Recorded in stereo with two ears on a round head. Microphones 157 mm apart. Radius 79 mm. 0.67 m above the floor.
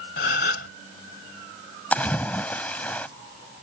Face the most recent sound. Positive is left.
turn(degrees=10)  # may be behind; listen again after turning